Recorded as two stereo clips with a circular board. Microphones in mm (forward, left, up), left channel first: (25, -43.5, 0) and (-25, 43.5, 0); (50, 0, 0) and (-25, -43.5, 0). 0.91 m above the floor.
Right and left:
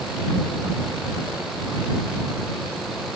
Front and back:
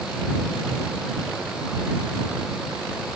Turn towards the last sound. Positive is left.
No sound to turn to.